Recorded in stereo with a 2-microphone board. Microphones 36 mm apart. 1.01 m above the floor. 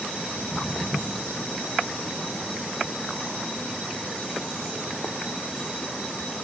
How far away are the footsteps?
About 4 m.